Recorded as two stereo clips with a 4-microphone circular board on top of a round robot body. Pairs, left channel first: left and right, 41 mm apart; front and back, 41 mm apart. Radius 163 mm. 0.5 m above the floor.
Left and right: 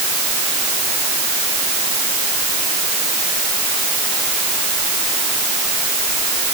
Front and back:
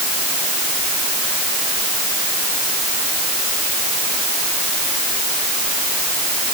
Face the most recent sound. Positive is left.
No sound to turn to.